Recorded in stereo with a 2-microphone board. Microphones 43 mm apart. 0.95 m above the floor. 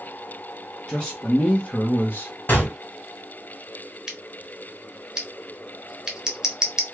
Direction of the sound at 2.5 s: 45° left (ahead or behind).